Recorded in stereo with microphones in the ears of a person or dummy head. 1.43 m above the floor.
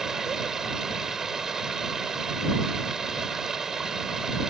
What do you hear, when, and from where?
0.0 s running water: 5° right (ahead or behind)